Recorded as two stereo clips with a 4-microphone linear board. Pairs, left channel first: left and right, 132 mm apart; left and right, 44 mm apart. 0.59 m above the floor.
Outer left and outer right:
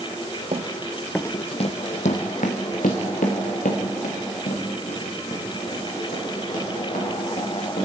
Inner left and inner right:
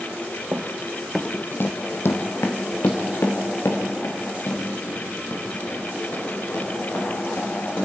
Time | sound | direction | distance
0.5 | running footsteps | 50° right (ahead or behind) | 1.0 m